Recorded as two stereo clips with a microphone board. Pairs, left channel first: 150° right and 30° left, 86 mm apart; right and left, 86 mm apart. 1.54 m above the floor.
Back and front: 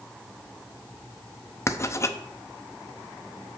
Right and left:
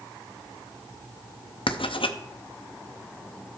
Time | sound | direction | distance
1.7 | writing | 90° right | 0.5 m